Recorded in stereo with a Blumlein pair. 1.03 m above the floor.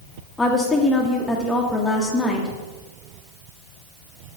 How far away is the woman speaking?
About 0.9 m.